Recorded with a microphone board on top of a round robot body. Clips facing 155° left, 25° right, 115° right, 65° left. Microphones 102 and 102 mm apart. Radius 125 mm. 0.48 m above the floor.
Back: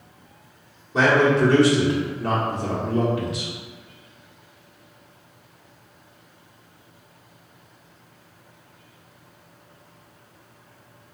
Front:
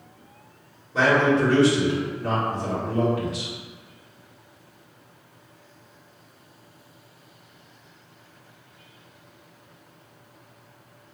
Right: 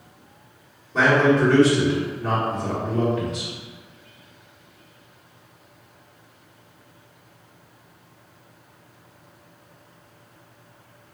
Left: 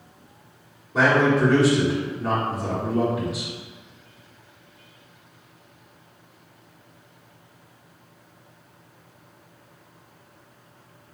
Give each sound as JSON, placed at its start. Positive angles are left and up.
{"t": 0.9, "sound": "a man speaking", "azimuth_deg": 140, "distance_m": 1.5}